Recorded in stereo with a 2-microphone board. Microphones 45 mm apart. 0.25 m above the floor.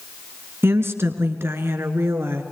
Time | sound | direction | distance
0.6 | a woman speaking | 65° right (ahead or behind) | 3 m